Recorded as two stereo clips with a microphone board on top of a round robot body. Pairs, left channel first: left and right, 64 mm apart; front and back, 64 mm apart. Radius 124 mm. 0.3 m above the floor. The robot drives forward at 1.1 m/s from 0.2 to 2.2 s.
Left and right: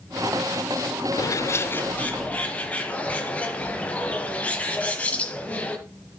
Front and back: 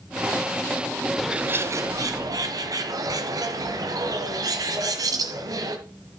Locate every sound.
1.2 s a bird: 85° left, 0.5 m; by 5.8 s 160° left, 1.2 m